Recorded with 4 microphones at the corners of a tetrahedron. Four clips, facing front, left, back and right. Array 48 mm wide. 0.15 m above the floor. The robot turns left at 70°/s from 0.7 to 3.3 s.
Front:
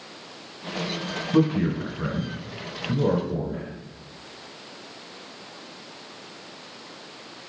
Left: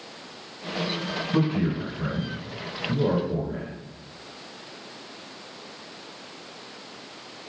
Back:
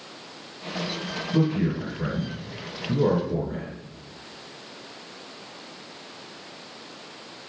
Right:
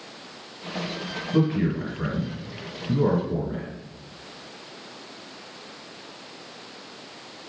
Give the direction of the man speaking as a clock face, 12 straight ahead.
11 o'clock.